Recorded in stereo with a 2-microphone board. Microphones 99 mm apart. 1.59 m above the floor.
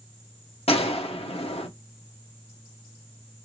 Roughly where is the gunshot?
Left.